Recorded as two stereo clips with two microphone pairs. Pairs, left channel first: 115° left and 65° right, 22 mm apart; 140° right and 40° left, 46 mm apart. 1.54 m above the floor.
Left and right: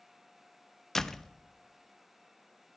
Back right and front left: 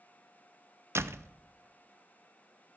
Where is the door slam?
45° left, 0.6 m.